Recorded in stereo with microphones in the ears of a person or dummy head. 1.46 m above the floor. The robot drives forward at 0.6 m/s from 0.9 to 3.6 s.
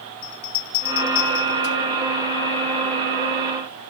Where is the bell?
75° left (ahead or behind), 1.7 m; by 1.8 s 55° left (ahead or behind), 1.9 m.